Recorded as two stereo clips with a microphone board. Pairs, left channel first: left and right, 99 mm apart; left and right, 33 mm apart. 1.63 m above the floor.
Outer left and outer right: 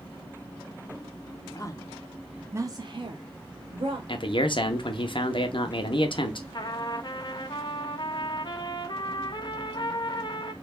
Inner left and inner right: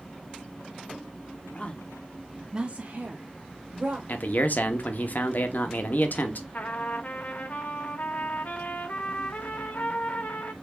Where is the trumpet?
50° left (ahead or behind), 0.8 m.